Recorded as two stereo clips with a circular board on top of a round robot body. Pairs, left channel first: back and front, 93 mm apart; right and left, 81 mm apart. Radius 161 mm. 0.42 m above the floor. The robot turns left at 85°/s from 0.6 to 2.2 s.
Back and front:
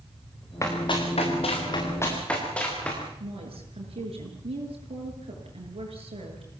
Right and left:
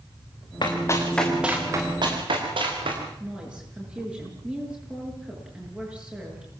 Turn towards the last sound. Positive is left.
turn(degrees=10)